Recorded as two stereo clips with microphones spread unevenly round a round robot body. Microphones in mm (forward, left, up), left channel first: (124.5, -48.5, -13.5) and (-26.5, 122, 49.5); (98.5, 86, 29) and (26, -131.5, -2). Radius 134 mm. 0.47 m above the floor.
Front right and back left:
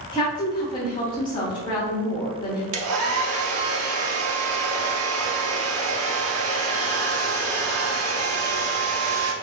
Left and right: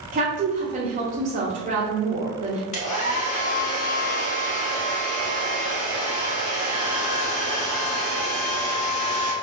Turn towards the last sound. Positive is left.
turn(degrees=135)